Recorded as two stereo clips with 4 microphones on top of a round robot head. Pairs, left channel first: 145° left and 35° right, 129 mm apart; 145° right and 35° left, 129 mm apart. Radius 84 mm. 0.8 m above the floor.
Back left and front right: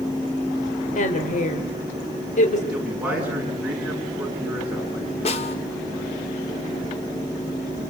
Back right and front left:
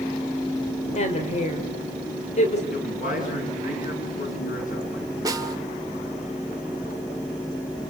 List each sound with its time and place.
0.9 s a woman speaking: 175° left, 3 m
2.7 s a man speaking: 115° right, 9 m
5.2 s a snare drum: 100° left, 2 m